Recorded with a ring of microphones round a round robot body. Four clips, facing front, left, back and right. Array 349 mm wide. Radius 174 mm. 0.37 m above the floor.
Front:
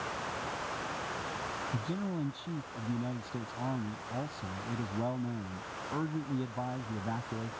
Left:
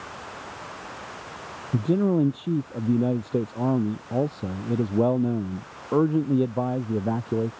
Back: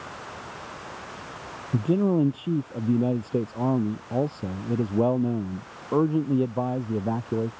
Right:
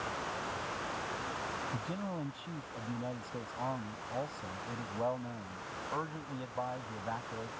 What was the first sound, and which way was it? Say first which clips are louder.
A man speaking: left 17 dB, back 18 dB; 130° left.